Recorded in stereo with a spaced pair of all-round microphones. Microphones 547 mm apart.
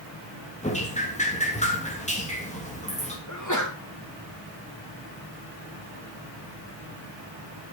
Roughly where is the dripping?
Centre.